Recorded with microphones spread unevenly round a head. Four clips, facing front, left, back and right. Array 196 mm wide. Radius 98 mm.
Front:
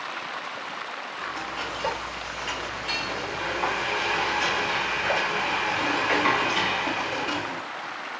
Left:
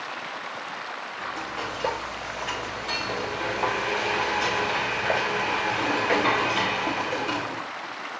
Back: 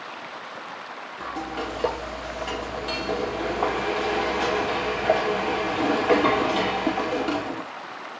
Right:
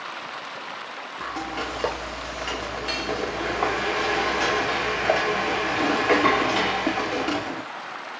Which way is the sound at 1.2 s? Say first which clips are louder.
Right 3 dB, back 4 dB; 145° right.